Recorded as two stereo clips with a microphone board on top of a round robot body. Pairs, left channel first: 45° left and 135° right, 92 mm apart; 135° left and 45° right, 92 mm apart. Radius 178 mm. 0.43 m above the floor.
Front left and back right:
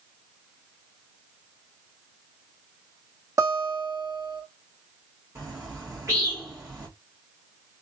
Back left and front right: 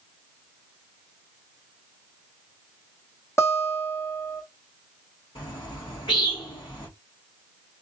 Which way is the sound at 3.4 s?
175° right.